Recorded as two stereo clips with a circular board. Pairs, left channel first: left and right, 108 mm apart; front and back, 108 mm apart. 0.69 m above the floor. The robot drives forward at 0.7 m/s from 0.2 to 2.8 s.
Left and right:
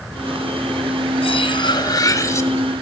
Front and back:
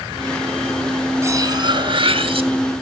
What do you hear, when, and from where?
1.2 s cutlery clinking: 115° left, 0.7 m; by 2.5 s 150° left, 1.4 m